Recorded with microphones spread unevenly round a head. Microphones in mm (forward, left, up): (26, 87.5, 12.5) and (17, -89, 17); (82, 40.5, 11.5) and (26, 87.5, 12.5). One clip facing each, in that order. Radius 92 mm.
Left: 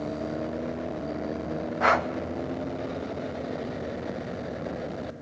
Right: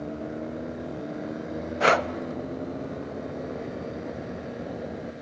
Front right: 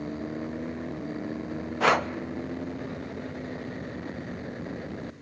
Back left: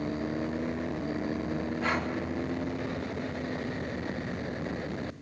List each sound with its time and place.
1.8 s breathing: 40° right, 0.9 m